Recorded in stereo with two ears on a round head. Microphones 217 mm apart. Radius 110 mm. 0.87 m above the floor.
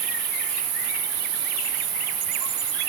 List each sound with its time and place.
0.0 s an insect: 75° right (ahead or behind), 4 m